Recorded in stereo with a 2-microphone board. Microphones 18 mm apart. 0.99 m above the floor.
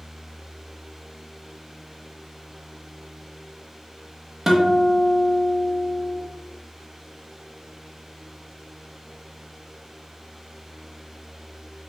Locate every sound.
4.5 s a guitar: 20° right (ahead or behind), 0.8 m